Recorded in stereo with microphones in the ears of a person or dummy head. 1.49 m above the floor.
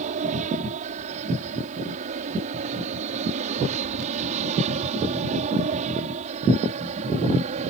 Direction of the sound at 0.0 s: 40° right (ahead or behind).